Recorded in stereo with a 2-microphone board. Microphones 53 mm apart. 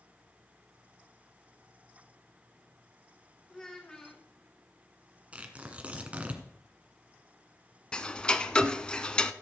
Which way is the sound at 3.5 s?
15° left (ahead or behind).